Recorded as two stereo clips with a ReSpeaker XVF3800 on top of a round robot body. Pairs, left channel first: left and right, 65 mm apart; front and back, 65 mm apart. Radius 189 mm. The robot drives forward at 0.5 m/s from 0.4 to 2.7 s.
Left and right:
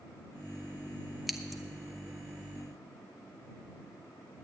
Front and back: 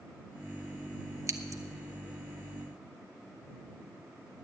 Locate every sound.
1.3 s scissors: straight behind, 1.1 m